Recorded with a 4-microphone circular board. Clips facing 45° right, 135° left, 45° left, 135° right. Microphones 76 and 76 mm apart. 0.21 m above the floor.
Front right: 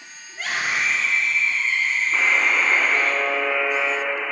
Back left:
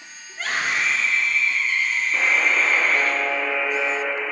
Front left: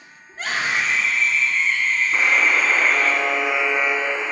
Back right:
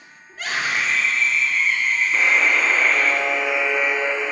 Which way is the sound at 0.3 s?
40° left.